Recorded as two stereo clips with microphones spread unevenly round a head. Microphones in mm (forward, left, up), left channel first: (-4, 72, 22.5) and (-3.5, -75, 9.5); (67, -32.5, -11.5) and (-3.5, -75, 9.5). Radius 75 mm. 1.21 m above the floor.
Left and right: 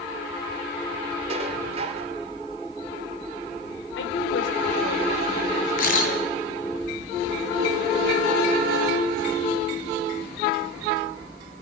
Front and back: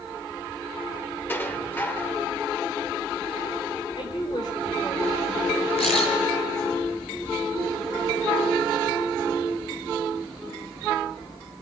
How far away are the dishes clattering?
About 2.5 m.